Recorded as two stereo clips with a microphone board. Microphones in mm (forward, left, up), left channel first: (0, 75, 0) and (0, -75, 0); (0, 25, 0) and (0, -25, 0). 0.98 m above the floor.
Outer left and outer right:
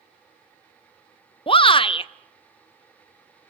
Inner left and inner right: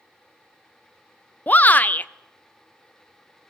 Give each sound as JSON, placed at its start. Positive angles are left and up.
{"t": 1.5, "sound": "a shout", "side_deg": 35, "distance_m": 0.6}